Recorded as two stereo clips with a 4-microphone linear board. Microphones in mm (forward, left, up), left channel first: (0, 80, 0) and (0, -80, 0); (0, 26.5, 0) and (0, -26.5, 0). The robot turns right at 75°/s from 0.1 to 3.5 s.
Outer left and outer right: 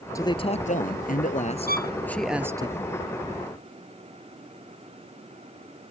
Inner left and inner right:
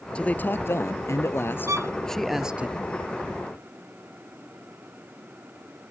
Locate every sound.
0.1 s a man speaking: 20° left; by 2.7 s 150° right
1.7 s a violin: 70° right (ahead or behind); by 1.9 s 60° right (ahead or behind)